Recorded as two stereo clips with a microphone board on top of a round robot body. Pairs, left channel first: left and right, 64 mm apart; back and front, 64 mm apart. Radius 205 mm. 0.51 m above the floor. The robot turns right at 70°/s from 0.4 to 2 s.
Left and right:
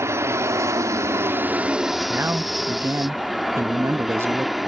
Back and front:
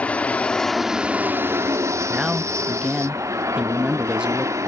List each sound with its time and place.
0.0 s an aircraft: 115° right; by 4.7 s straight ahead
2.1 s a man speaking: 65° right